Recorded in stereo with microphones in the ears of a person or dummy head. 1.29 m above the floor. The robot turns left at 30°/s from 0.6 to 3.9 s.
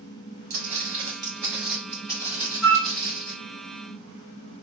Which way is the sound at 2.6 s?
85° left.